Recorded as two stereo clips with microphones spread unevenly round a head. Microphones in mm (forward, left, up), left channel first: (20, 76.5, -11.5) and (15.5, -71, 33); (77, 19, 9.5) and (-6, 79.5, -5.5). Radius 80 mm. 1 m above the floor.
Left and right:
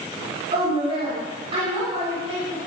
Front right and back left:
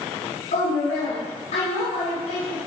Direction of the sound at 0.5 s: 40° right.